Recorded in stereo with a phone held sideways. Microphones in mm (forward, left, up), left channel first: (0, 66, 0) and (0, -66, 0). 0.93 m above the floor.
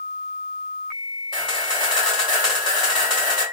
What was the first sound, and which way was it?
A camera shutter, 35° left (ahead or behind).